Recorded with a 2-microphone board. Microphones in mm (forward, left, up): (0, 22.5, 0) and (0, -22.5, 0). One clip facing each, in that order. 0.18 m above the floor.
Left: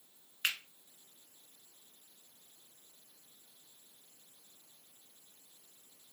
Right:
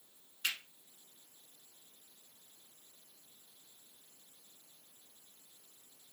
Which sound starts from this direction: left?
A finger snap, at 0.4 s.